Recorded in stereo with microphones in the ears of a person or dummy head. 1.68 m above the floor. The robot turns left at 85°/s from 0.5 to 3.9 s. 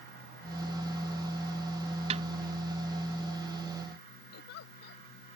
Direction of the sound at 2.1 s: 35° right (ahead or behind).